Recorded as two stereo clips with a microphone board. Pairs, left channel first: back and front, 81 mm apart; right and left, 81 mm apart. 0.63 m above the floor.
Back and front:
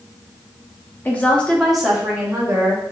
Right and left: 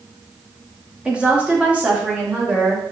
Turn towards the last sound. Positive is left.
turn(degrees=25)